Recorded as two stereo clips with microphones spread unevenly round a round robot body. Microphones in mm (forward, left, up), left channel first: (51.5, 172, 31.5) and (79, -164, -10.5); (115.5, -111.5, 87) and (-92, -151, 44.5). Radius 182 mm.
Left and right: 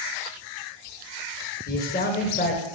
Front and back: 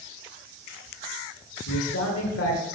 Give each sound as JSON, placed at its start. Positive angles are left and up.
{"t": 1.7, "sound": "a man speaking", "azimuth_deg": 30, "distance_m": 1.8}